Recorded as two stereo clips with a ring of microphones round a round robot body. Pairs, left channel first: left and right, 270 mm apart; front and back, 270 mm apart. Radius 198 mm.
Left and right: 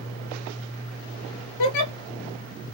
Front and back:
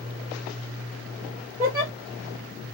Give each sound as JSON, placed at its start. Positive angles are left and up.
{"t": 1.6, "sound": "a giggle", "azimuth_deg": 95, "distance_m": 1.2}